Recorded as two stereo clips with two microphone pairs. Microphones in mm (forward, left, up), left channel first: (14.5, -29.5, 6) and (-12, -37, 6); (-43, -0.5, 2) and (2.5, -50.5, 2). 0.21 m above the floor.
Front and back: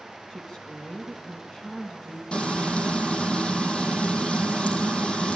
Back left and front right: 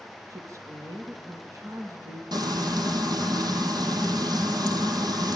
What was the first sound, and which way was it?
A woman speaking, 50° right.